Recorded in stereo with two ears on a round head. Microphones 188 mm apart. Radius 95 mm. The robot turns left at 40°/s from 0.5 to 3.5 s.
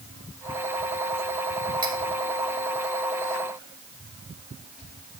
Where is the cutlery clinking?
25° right (ahead or behind), 2.5 m; by 2.0 s 20° right (ahead or behind), 2.5 m.